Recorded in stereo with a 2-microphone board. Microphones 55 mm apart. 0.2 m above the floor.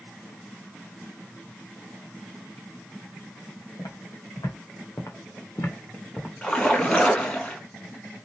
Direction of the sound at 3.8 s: 85° left.